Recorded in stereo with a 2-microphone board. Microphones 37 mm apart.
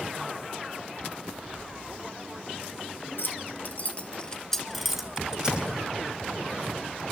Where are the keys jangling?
65° left (ahead or behind), 2.5 m; by 5.7 s 25° right (ahead or behind), 3 m.